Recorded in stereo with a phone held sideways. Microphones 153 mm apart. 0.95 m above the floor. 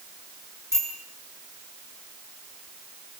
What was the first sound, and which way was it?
A bicycle bell, 15° right (ahead or behind).